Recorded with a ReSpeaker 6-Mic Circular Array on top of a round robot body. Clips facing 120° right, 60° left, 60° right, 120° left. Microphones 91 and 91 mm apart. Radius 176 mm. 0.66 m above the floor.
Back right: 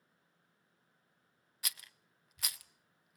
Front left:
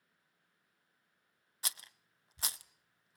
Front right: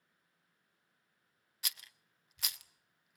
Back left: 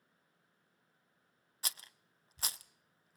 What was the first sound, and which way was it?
A rattle, 95° left.